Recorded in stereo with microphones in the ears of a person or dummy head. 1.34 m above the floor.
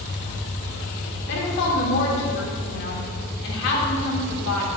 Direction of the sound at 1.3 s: 60° left (ahead or behind).